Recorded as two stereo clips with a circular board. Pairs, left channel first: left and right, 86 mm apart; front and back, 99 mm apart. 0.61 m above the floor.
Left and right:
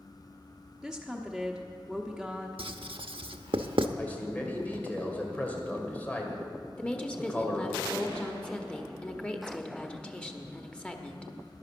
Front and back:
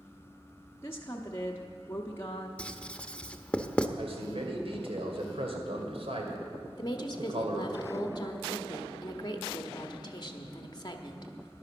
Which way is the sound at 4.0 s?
160° left.